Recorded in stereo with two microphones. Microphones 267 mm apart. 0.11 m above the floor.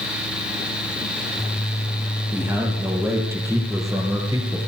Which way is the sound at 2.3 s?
10° right (ahead or behind).